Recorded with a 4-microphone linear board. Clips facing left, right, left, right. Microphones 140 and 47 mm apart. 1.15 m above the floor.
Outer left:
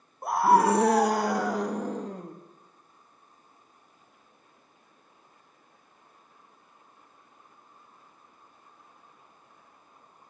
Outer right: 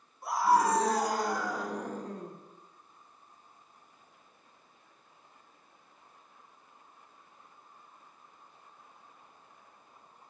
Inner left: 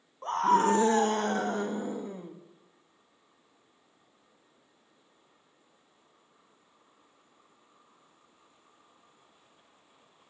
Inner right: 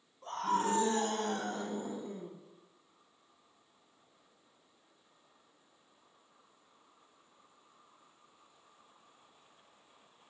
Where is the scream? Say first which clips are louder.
Outer left 5 dB, inner left 8 dB; 55° left (ahead or behind), 1.1 m; by 2.4 s 75° left (ahead or behind), 2.5 m.